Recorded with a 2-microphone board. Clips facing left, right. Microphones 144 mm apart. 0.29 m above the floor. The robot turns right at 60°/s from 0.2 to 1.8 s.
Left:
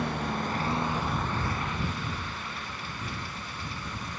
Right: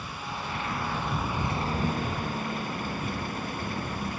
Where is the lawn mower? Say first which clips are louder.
Left 6 dB; 60° left (ahead or behind); by 4.2 s 50° right (ahead or behind).